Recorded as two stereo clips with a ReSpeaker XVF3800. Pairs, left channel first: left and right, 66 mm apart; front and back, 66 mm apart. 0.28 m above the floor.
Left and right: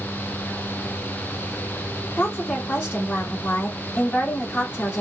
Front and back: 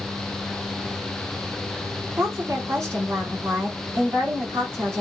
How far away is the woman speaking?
About 2.5 m.